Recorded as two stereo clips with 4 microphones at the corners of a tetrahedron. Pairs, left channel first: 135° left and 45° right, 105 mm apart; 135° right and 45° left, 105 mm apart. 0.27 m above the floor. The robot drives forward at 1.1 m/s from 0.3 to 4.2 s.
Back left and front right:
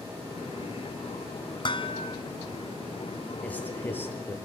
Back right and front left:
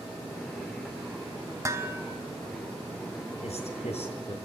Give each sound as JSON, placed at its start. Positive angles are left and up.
{"t": 1.6, "sound": "dishes clattering", "azimuth_deg": 100, "distance_m": 1.5}
{"t": 3.4, "sound": "a man speaking", "azimuth_deg": -150, "distance_m": 4.5}